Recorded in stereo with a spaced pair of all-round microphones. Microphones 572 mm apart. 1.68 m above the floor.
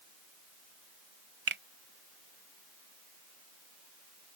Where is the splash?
No splash in this recording.